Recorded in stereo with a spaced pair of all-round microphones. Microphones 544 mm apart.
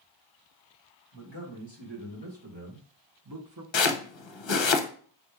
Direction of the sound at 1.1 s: 55° right (ahead or behind).